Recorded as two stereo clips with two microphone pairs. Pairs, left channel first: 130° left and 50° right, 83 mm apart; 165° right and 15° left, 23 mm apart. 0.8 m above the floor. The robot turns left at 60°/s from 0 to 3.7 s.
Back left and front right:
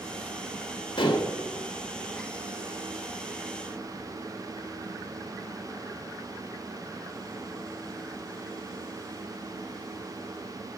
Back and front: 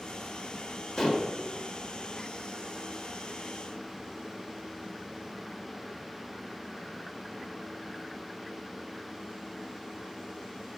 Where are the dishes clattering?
125° left, 1.1 m; by 1.4 s 100° left, 1.1 m.